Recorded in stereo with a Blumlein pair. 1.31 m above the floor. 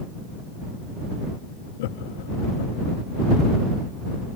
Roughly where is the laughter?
Ahead left.